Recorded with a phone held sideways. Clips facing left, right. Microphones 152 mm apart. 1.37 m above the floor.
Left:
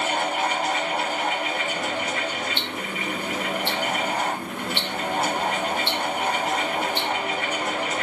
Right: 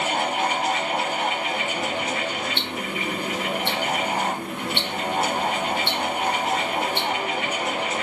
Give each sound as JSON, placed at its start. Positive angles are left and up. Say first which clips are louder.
{"t": 0.0, "sound": "a fan", "louder": "right 1 dB", "side_deg": -65, "distance_m": 1.4}
{"t": 2.6, "sound": "ticking", "louder": "right 2 dB", "side_deg": -55, "distance_m": 1.1}